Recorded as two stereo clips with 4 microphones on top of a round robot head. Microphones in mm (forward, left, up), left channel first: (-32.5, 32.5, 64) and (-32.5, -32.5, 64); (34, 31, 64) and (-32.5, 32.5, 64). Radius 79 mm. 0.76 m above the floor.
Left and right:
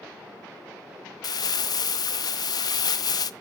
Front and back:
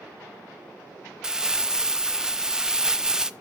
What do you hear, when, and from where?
1.2 s crumpling: 100° left, 0.5 m